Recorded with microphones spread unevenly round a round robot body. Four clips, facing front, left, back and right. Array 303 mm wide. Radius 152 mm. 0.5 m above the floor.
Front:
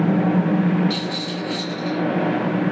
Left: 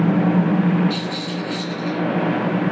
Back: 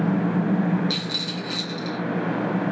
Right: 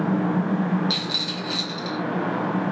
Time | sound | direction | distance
0.9 | a rattle | 140° right | 1.6 m